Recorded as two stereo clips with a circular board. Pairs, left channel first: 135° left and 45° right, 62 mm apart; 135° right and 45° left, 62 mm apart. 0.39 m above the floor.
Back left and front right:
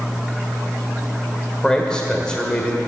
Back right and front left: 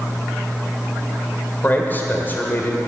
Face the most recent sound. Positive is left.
turn(degrees=-160)